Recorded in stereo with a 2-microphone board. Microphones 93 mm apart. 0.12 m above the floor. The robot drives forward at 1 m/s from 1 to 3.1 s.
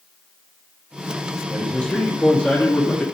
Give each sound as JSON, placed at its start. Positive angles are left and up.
{"t": 1.5, "sound": "a man speaking", "side_deg": 5, "distance_m": 2.5}